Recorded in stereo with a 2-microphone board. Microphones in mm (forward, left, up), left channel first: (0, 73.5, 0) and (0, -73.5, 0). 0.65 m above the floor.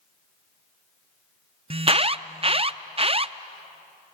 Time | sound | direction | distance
1.7 | an alarm | 40° right (ahead or behind) | 0.5 m